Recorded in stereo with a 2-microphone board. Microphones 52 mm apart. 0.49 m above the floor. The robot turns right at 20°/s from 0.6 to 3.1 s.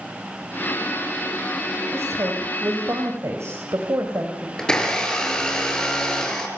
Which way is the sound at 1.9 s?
60° right (ahead or behind).